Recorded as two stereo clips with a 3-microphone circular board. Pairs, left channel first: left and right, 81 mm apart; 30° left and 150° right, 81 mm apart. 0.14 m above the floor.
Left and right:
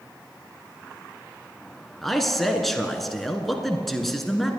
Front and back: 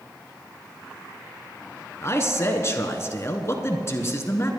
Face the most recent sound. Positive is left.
turn(degrees=5)